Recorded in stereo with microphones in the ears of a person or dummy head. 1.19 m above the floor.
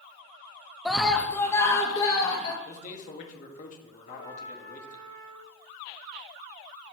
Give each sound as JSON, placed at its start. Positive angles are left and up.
{"t": 0.8, "sound": "a scream", "side_deg": 0, "distance_m": 0.6}
{"t": 2.6, "sound": "a man speaking", "side_deg": 50, "distance_m": 1.2}
{"t": 4.1, "sound": "a trumpet", "side_deg": 80, "distance_m": 4.0}